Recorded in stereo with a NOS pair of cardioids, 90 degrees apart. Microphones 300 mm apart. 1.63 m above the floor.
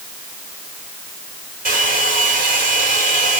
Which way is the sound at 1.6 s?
30° right.